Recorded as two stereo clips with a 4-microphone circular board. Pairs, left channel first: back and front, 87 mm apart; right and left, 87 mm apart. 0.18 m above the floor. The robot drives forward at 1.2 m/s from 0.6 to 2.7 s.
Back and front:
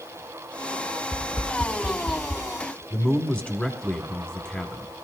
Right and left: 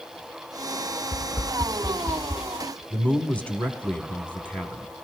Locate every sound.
1.1 s tapping: 90° right, 0.5 m; by 2.4 s 165° right, 1.7 m
2.9 s a man speaking: 135° right, 1.0 m